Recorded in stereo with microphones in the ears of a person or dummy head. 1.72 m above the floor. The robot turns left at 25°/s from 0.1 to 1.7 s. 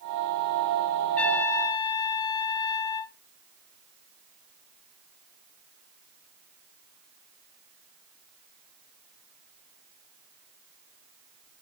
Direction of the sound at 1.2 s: 5° left (ahead or behind).